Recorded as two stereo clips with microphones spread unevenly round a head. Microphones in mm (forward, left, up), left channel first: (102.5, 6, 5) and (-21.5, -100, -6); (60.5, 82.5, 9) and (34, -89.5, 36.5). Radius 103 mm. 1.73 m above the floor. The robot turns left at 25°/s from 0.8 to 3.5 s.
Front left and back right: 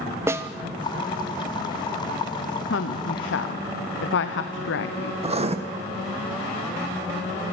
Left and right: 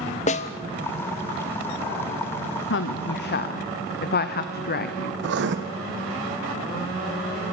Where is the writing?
85° right, 1.6 m.